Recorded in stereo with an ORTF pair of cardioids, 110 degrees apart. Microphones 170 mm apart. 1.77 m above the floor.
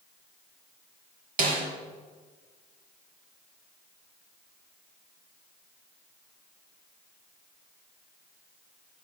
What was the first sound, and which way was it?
A snare drum, 55° right.